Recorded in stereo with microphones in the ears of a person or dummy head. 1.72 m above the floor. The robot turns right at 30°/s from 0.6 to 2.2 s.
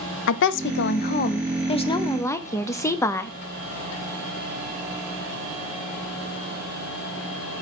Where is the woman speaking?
125° left, 0.6 m; by 3.3 s 170° left, 0.6 m.